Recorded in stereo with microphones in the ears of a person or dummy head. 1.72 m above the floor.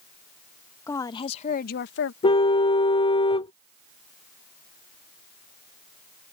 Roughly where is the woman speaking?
Centre.